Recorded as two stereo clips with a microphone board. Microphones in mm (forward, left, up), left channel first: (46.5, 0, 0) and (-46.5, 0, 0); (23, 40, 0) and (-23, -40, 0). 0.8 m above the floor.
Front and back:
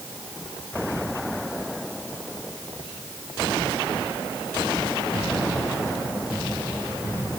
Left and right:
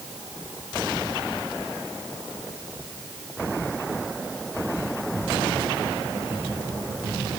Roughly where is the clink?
No clink in this recording.